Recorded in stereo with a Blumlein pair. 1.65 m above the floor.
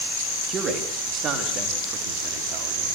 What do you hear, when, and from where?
0.5 s a man speaking: 20° right, 3.5 m; by 3.0 s 40° right, 5 m